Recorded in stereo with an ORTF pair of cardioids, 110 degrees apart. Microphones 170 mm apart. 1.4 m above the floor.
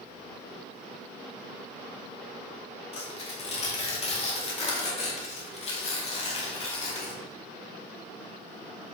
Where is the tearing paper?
40° left, 2.5 m.